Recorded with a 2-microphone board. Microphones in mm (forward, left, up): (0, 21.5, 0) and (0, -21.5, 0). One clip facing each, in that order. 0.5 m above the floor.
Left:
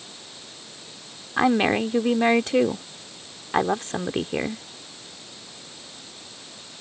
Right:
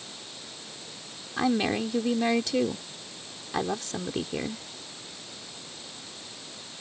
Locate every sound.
1.4 s a woman speaking: 40° left (ahead or behind)